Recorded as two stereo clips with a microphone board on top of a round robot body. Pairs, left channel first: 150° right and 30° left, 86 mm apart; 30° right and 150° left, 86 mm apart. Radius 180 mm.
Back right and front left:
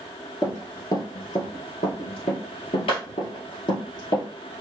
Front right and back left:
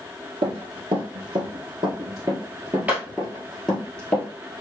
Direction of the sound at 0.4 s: 155° left.